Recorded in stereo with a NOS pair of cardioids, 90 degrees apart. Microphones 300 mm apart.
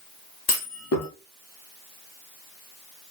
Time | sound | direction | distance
0.5 | a clunk | 55° left | 0.7 m